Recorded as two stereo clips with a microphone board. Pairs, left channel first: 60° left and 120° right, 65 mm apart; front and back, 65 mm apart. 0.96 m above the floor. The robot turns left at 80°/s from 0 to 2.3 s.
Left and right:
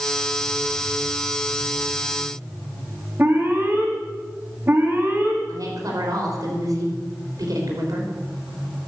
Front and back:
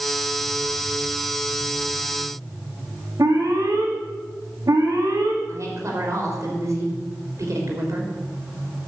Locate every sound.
3.2 s an alarm: 170° right, 2.5 m
5.5 s a woman speaking: 140° right, 3.5 m